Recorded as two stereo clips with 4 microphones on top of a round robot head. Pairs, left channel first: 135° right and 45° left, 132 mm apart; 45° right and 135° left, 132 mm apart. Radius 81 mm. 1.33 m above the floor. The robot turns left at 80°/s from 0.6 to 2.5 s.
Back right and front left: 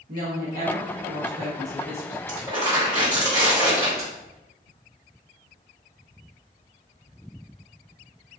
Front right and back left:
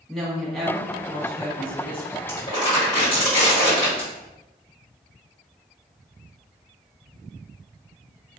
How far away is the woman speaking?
About 1.3 m.